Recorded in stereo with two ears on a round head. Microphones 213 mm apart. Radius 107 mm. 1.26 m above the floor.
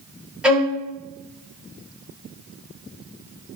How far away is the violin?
About 2 m.